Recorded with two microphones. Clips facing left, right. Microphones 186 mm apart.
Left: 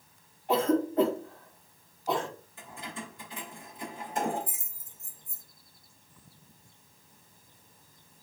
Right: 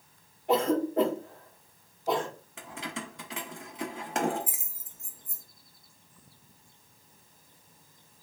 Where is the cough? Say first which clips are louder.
Even; 65° right (ahead or behind), 2.5 m.